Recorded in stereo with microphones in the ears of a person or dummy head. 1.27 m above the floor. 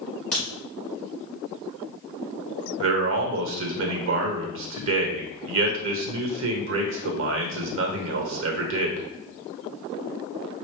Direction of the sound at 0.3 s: 10° left (ahead or behind).